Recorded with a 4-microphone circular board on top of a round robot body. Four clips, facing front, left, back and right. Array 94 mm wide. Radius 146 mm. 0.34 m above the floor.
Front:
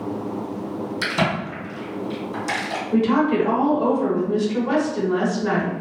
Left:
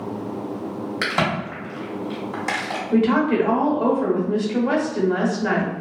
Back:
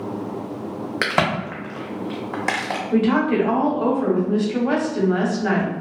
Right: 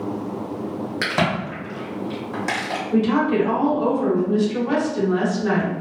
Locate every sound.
1.0 s a crack: straight behind, 0.8 m
2.9 s a woman speaking: 130° left, 1.2 m